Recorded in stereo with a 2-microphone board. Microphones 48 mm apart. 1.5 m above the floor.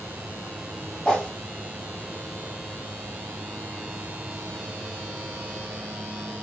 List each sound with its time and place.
1.1 s a whoosh: 10° left (ahead or behind), 1.8 m